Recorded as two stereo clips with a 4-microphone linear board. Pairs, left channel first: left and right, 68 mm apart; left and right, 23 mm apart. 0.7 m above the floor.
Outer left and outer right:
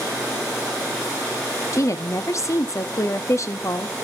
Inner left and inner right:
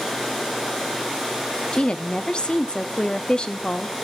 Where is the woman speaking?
45° left (ahead or behind), 0.8 m.